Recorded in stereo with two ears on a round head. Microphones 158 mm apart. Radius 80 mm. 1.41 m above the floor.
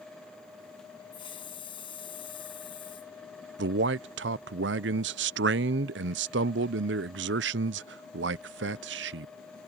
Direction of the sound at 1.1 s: 30° left (ahead or behind).